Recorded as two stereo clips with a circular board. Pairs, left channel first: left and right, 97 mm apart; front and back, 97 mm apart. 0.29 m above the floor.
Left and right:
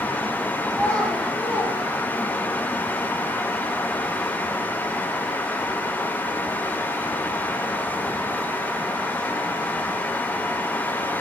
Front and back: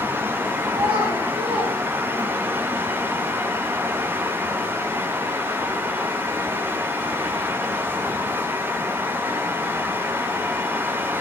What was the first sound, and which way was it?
A child speaking, 170° left.